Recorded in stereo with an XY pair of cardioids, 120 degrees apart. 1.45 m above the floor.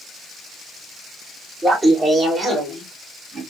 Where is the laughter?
15° right, 1.8 m; by 3.4 s 25° right, 2.5 m.